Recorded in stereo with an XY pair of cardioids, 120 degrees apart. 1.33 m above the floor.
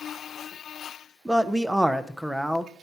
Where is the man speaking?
5° right, 0.6 m.